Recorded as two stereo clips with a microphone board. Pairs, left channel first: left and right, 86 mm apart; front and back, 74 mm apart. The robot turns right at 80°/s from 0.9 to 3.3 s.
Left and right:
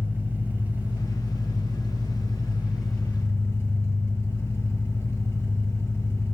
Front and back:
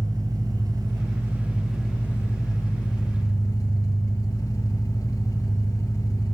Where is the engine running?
160° right, 1.3 m; by 6.4 s 35° left, 1.3 m.